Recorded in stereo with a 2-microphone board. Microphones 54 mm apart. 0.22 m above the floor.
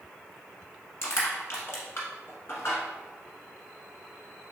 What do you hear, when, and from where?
1.0 s crushing: 55° left (ahead or behind), 1.0 m